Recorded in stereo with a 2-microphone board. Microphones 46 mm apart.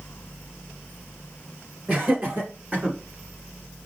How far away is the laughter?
About 2.5 m.